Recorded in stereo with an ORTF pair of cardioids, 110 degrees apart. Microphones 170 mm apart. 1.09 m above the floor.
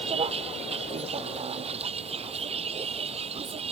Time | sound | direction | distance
0.0 | a vehicle | 35° right | ?